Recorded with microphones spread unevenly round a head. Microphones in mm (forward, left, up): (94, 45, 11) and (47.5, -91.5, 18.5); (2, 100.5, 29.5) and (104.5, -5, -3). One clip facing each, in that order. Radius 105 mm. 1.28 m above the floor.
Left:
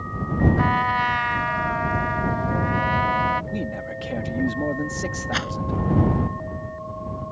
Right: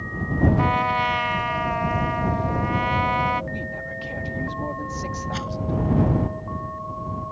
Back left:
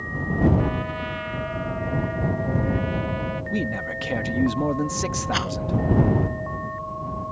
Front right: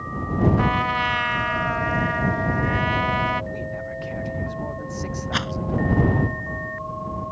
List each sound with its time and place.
0.6 s a trumpet: 40° right
3.5 s a man speaking: 130° left
5.3 s a rattle: 50° left